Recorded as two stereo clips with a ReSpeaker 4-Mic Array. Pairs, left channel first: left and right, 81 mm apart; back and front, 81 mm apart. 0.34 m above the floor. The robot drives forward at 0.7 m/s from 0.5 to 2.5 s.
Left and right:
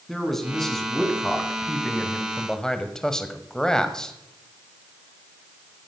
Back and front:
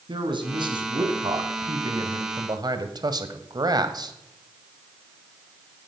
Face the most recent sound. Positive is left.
turn(degrees=10)